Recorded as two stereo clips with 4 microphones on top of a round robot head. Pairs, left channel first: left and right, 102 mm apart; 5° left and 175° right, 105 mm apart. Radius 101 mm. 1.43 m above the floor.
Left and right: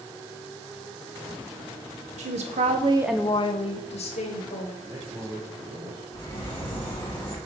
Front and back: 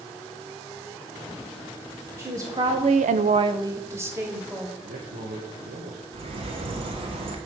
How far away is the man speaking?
About 1.1 m.